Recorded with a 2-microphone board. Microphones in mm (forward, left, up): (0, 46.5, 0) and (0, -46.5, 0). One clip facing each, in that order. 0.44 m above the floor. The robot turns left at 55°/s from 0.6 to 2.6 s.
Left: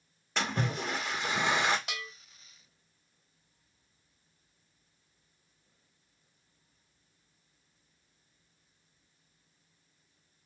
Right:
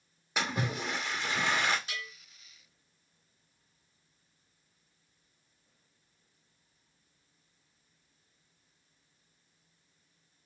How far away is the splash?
About 1.2 m.